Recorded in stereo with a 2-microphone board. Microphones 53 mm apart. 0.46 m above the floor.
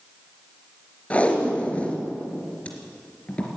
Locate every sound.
1.1 s tape being pulled: 25° left (ahead or behind), 3.5 m